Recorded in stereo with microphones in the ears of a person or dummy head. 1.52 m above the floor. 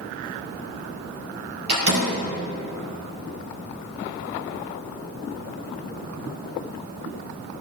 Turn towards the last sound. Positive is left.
turn(degrees=-60)  # may be behind; listen again after turning